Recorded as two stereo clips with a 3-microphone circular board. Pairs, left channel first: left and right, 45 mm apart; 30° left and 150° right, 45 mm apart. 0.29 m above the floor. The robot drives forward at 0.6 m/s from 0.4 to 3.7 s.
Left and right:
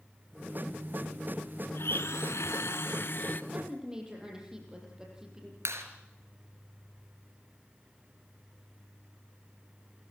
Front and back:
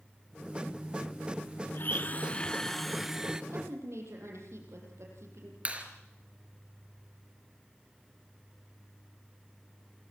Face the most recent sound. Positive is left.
turn(degrees=-90)